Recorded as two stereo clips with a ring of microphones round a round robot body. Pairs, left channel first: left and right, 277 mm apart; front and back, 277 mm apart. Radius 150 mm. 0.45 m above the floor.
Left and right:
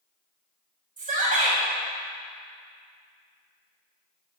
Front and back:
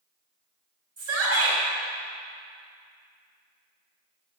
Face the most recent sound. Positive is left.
turn(degrees=-160)